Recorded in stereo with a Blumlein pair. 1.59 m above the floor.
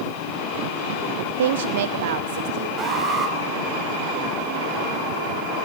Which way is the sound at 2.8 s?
15° right.